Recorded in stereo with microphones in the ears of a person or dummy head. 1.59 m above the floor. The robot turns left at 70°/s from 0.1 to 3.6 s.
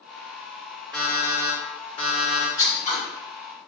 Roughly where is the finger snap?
No finger snap in this recording.